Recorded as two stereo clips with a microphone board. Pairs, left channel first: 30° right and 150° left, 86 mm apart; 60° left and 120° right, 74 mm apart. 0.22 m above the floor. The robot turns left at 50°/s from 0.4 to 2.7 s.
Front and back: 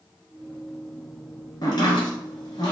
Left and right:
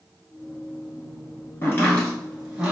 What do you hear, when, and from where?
1.6 s chopping: 5° left, 1.4 m; by 2.7 s 50° right, 1.4 m